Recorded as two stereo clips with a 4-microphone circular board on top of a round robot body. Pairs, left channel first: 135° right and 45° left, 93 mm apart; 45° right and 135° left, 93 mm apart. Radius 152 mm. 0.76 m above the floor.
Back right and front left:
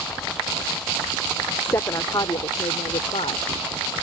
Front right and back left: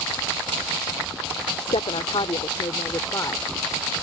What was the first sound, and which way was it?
A woman speaking, 70° right.